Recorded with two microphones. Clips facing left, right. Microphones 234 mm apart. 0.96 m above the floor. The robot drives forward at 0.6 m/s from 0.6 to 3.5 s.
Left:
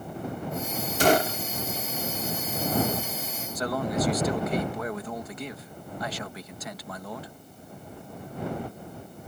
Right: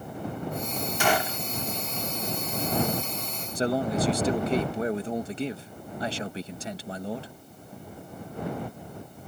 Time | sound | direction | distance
1.0 | a gunshot | 40° left (ahead or behind) | ?
3.5 | a man speaking | 30° right (ahead or behind) | ?